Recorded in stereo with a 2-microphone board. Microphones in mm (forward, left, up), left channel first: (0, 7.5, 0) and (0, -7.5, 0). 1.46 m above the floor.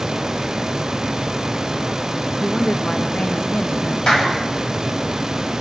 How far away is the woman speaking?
About 1.6 m.